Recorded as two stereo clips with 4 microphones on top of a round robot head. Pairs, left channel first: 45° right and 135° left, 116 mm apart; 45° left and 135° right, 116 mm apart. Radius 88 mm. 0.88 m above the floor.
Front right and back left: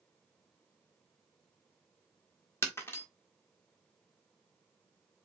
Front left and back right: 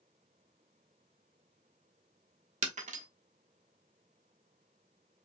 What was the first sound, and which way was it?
Breaking glass, 115° right.